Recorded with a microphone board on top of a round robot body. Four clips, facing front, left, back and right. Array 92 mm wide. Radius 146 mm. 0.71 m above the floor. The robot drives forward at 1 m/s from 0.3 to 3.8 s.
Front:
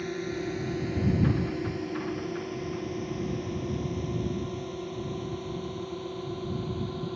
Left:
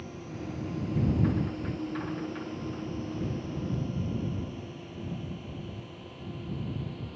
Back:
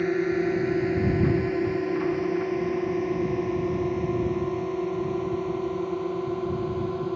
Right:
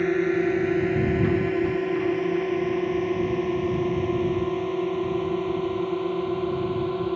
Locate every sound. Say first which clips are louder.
0.0 s a drone: right 18 dB, back 9 dB; 120° right; by 7.2 s 115° right